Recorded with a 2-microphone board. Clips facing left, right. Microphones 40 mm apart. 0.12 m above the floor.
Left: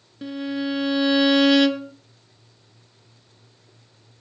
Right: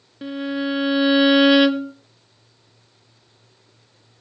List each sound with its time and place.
0.2 s a violin: 15° right (ahead or behind), 0.9 m